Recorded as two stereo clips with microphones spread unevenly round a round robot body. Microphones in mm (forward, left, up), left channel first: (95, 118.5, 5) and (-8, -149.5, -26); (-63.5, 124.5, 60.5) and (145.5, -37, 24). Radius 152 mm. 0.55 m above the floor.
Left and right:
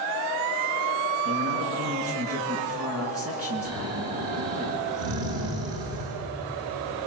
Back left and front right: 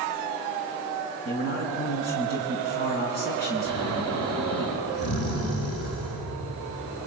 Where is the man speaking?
160° right, 5.5 m.